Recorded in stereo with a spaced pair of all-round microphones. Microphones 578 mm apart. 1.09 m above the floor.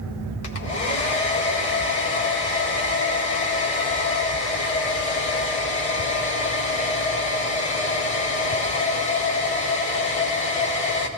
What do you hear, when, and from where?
0.4 s a hair dryer: 70° left (ahead or behind), 1.0 m